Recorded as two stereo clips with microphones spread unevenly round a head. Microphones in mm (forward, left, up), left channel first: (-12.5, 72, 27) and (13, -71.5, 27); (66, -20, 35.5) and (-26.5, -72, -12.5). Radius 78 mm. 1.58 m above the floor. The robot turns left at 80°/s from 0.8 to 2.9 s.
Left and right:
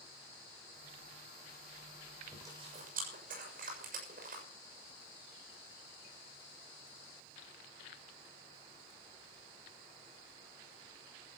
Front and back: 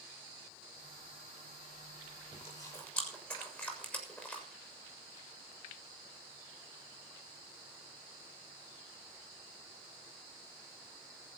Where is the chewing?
Straight ahead, 7 m; by 4.4 s 45° right, 7 m.